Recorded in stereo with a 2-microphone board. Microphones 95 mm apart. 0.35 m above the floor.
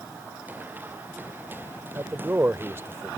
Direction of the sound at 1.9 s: 25° right (ahead or behind).